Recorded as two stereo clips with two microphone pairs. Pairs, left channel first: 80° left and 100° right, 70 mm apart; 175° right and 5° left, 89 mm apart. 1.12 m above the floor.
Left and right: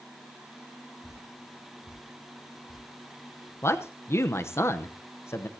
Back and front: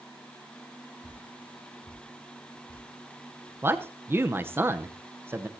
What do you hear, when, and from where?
1.0 s dripping: 175° left, 9 m
3.6 s a man speaking: 55° left, 0.8 m